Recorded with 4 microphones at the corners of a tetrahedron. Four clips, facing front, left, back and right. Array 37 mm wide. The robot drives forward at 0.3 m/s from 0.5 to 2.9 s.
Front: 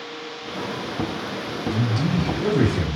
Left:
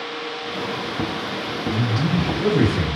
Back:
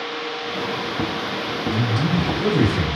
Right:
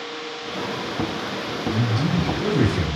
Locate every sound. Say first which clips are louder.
1.7 s a man speaking: left 1 dB, back 1 dB; 90° left, 0.5 m; by 3.0 s 145° left, 0.6 m